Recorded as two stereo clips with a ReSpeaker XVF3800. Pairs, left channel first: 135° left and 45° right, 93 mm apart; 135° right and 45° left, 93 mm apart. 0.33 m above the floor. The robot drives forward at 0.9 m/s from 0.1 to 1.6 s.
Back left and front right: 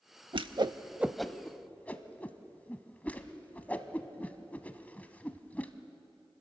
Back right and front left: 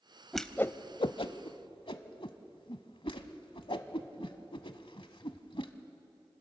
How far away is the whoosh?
About 0.6 m.